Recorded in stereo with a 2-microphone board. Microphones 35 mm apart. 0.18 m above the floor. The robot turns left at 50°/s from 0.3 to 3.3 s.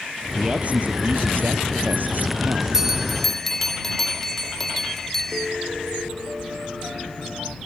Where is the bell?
15° right (ahead or behind); by 5.5 s 10° left (ahead or behind).